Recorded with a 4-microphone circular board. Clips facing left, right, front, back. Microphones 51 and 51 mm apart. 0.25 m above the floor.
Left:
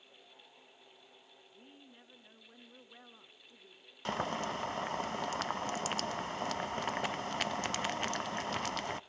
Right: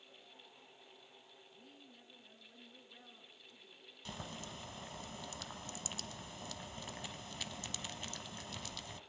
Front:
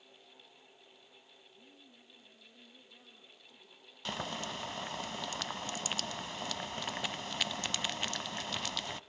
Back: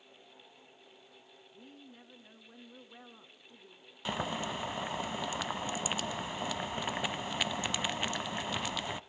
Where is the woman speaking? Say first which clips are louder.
Left 4 dB, back 9 dB; 150° left, 2.5 m.